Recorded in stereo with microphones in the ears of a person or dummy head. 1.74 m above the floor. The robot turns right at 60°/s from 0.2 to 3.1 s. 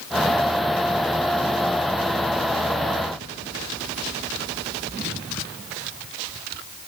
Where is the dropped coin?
I don't hear a dropped coin.